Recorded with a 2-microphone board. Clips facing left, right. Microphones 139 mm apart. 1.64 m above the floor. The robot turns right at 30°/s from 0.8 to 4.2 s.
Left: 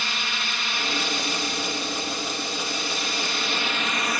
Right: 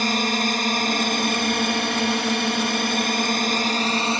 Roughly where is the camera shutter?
I don't hear a camera shutter.